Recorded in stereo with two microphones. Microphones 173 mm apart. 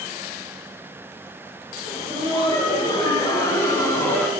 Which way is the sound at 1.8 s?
30° left (ahead or behind).